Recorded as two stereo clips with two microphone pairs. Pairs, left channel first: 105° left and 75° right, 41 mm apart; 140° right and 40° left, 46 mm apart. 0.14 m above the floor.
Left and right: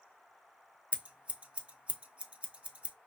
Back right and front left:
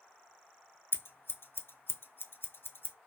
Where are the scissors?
135° right, 0.6 m.